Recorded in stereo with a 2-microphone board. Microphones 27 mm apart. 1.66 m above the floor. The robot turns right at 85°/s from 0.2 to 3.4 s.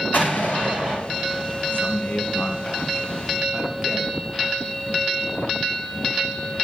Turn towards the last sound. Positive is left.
turn(degrees=-150)